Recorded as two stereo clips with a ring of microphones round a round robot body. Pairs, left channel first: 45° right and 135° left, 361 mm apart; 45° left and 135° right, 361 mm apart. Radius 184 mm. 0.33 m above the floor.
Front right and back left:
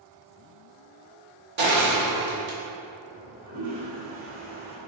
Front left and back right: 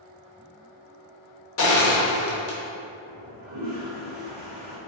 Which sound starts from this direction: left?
Crushing, at 1.6 s.